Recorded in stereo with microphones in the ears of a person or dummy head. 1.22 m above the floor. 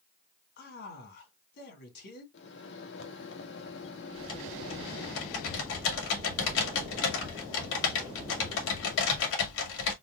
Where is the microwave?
60° left (ahead or behind), 1.2 m.